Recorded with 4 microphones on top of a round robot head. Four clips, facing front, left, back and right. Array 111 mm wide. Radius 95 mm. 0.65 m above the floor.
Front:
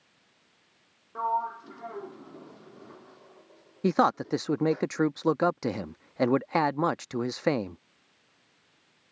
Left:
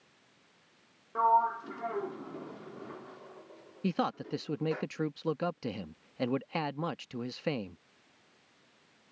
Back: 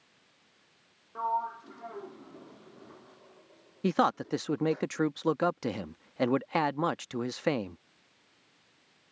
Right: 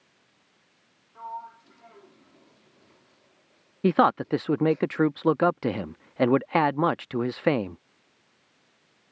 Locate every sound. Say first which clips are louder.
1.1 s a sliding door: left 13 dB, front 2 dB; 80° left
3.8 s a man speaking: right 12 dB, front 3 dB; 70° right